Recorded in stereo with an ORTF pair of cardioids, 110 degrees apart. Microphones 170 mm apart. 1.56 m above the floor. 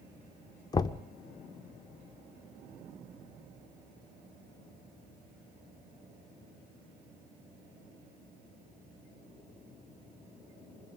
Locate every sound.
0.7 s knocking: 25° left, 0.6 m